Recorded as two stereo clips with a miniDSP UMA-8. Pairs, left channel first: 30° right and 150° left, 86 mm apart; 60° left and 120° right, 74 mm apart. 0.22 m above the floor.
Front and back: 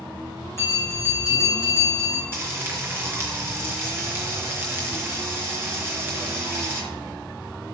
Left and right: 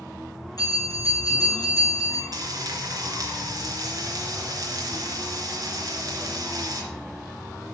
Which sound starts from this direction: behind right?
Frying, at 2.3 s.